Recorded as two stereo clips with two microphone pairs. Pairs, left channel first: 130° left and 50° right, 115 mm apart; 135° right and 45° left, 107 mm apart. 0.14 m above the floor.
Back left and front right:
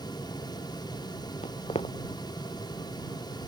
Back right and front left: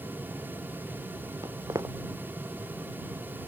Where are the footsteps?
100° left.